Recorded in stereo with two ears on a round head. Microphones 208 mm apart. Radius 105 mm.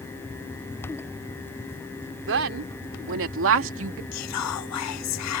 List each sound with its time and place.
2.3 s a woman speaking: 60° right (ahead or behind); by 4.0 s 65° right (ahead or behind)
4.1 s whispering: 75° left (ahead or behind)